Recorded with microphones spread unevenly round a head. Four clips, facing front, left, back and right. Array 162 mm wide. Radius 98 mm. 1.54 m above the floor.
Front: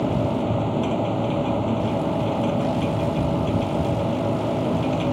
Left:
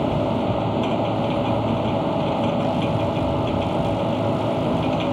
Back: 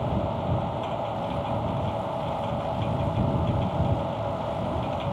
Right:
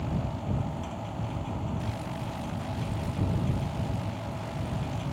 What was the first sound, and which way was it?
A machine running, 60° left.